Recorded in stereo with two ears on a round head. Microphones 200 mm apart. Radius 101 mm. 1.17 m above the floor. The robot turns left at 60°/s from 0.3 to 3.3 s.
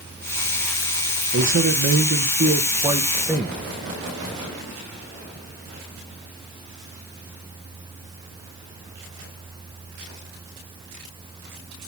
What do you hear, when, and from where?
1.3 s a man speaking: 65° right, 0.9 m; by 3.6 s 175° left, 0.9 m